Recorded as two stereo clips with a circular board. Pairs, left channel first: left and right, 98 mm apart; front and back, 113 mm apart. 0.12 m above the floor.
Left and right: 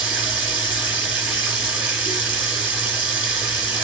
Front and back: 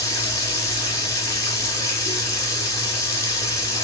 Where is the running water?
25° right, 1.5 m.